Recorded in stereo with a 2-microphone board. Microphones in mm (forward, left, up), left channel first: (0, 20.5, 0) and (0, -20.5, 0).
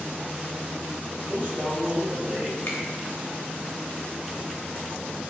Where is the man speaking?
70° right (ahead or behind), 1.9 m.